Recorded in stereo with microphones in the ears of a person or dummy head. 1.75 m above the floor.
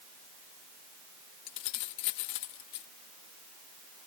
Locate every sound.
1.5 s keys jangling: 60° left (ahead or behind)